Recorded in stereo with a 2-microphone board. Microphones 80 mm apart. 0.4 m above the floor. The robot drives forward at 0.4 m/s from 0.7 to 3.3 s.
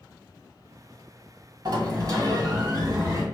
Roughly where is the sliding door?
Right.